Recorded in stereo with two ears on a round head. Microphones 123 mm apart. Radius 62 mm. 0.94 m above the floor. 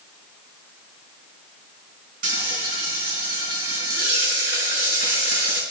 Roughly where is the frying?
Right.